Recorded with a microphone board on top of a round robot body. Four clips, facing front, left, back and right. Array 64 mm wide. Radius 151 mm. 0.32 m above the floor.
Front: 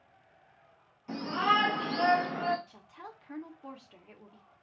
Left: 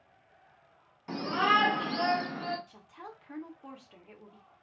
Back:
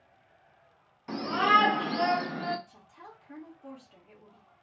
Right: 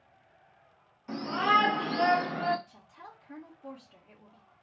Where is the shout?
140° left, 1.2 m; by 2.6 s 50° right, 1.1 m.